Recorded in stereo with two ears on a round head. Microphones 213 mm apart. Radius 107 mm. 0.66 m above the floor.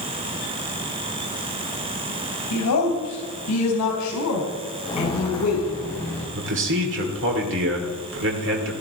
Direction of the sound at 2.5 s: 75° left (ahead or behind).